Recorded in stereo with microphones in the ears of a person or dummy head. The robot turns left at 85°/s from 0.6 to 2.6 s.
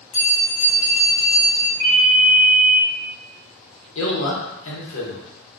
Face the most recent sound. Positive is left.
turn(degrees=75)  # may be behind; listen again after turning